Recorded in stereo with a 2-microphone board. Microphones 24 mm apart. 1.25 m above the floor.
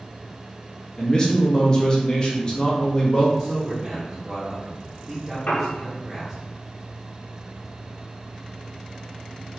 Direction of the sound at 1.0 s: 25° left (ahead or behind).